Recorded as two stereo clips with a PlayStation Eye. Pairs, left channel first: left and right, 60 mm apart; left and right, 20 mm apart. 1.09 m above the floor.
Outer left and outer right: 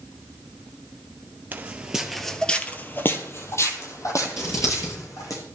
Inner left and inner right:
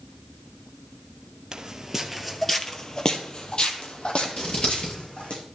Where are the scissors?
75° left (ahead or behind), 8.5 m.